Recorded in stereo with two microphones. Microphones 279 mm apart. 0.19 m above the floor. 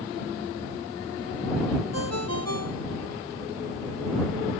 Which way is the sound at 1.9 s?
65° right (ahead or behind).